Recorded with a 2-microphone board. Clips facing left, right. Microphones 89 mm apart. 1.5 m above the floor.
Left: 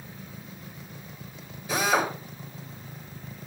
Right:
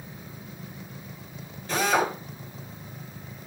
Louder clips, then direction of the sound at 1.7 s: Right 1 dB; 10° left (ahead or behind).